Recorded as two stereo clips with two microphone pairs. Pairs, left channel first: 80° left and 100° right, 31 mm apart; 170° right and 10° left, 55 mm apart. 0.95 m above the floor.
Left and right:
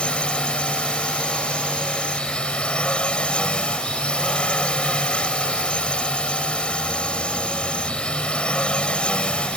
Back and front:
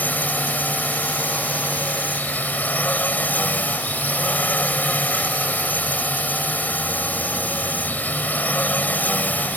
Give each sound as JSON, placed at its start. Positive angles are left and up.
{"t": 0.0, "sound": "a drone", "azimuth_deg": 135}